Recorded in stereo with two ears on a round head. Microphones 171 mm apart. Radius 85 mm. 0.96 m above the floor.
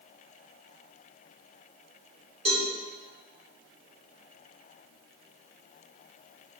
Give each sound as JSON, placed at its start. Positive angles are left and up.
{"t": 2.5, "sound": "a cowbell", "side_deg": -35, "distance_m": 2.5}